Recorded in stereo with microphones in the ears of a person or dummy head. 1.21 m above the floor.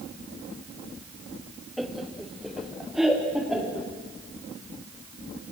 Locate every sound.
1.8 s laughter: 5° right (ahead or behind), 0.8 m; by 3.9 s 10° right (ahead or behind), 4 m